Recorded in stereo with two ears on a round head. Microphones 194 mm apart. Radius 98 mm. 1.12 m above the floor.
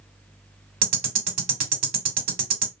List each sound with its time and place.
0.8 s ticking: 40° right (ahead or behind), 1.3 m